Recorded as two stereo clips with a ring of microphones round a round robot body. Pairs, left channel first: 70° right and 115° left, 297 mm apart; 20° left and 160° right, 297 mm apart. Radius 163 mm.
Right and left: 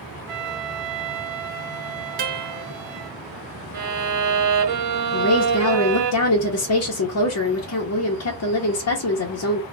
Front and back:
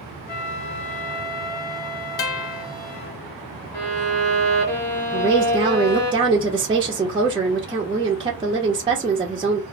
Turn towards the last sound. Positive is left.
turn(degrees=-85)